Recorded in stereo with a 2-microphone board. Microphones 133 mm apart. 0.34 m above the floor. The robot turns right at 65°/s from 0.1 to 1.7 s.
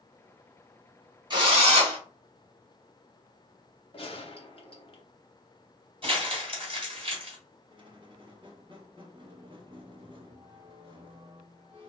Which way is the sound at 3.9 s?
45° left (ahead or behind).